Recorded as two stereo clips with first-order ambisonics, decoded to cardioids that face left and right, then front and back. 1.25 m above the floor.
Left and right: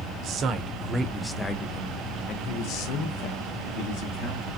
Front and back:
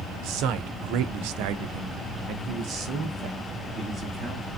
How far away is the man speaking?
About 0.8 m.